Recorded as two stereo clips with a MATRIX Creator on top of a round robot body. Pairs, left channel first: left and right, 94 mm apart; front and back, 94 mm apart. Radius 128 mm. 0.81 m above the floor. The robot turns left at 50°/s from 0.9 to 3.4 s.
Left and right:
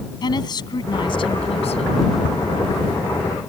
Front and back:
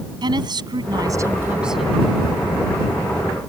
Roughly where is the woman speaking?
Behind left.